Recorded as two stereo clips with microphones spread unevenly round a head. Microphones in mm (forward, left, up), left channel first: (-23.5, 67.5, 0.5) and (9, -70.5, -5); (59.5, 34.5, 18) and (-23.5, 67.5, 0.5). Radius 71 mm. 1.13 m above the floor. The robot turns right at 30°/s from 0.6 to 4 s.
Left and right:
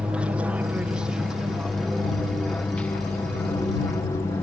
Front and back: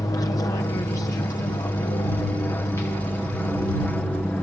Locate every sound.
0.0 s an aircraft: 5° right; by 4.4 s 55° left